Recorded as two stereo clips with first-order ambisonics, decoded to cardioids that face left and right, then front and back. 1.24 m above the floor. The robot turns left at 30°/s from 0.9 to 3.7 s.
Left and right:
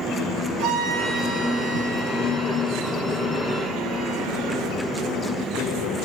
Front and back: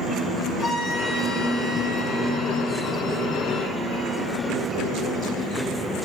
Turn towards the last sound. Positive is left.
turn(degrees=-145)